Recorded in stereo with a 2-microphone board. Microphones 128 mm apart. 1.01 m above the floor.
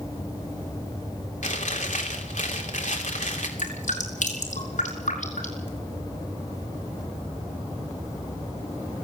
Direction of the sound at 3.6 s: 80° left.